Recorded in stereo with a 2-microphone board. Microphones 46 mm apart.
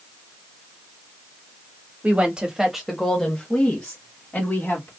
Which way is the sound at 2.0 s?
30° right (ahead or behind).